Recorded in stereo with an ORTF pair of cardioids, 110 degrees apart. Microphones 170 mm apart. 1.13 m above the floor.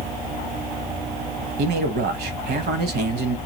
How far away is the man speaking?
About 0.9 m.